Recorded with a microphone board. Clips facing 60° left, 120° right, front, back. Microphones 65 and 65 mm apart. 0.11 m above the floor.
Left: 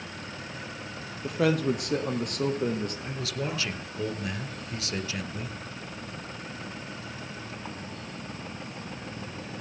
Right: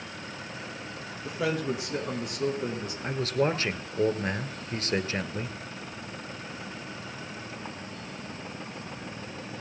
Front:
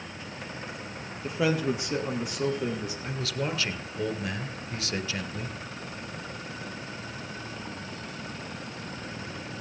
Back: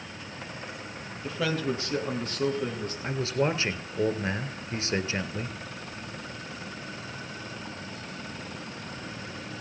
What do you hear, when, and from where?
1.2 s a man speaking: 65° left, 3 m; by 2.9 s 85° left, 4 m
3.0 s a man speaking: 135° right, 1.4 m